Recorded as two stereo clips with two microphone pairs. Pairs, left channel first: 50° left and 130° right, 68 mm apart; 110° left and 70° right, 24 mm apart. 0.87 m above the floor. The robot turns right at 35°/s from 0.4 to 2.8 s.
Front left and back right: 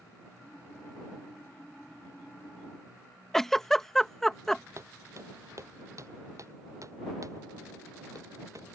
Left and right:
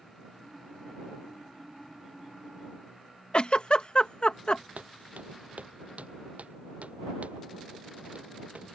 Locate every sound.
3.3 s a giggle: 130° left
4.8 s footsteps: 85° right; by 8.8 s 95° right